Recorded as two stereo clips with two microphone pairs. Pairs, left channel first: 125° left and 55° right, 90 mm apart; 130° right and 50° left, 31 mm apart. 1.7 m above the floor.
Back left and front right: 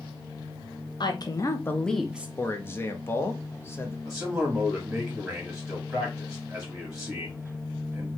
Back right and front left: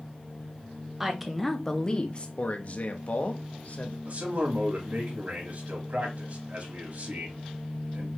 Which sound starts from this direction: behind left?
A woman speaking, at 1.0 s.